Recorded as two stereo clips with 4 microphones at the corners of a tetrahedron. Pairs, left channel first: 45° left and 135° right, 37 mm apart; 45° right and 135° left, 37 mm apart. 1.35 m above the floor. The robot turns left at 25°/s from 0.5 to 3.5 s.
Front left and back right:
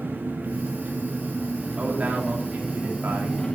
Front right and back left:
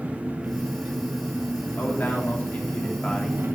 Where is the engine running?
170° right, 2.5 m; by 3.6 s 115° left, 2.5 m.